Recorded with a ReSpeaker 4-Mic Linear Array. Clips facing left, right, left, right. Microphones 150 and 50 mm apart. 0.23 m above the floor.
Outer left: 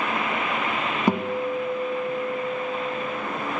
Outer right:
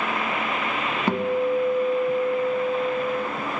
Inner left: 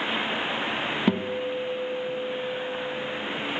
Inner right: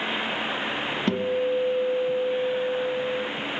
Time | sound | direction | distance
1.1 | a guitar | 15° left (ahead or behind) | 1.9 m